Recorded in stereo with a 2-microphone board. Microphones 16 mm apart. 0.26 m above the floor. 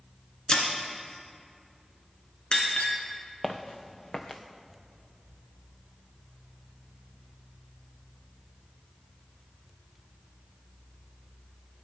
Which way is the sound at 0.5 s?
65° left (ahead or behind).